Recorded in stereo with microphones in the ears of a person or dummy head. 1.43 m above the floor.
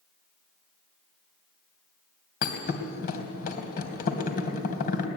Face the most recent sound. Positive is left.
turn(degrees=50)  # may be behind; listen again after turning